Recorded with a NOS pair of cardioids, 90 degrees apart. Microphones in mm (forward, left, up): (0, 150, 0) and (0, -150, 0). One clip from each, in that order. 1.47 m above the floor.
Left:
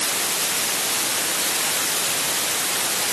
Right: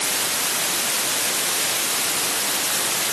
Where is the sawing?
No sawing in this recording.